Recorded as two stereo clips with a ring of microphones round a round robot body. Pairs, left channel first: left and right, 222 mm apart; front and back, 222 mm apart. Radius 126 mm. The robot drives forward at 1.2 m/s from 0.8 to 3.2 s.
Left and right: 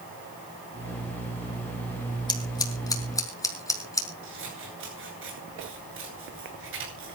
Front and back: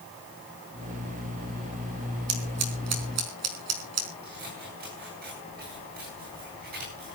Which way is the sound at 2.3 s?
165° left.